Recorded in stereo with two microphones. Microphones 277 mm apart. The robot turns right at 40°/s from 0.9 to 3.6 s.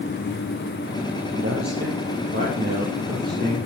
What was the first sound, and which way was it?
A man speaking, 95° right.